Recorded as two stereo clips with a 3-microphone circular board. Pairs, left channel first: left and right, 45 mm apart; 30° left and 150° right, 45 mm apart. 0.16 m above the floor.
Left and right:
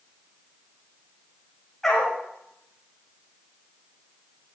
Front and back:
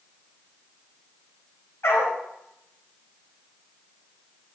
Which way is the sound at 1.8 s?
5° left.